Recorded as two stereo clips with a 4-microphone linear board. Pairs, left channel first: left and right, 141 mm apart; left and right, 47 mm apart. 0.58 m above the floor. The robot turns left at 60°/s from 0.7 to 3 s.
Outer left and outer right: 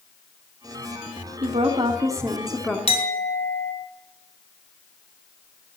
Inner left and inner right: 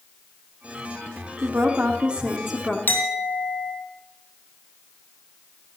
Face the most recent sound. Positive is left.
turn(degrees=50)  # may be behind; listen again after turning